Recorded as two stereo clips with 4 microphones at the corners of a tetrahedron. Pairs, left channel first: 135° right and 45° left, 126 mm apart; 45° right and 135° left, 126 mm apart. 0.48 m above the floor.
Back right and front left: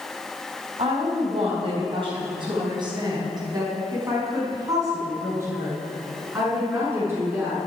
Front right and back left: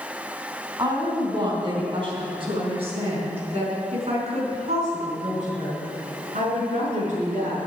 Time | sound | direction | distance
0.8 | a woman speaking | 80° left | 3.5 m